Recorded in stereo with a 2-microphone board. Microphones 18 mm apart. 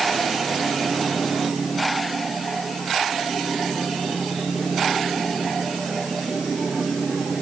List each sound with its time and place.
Only background noise.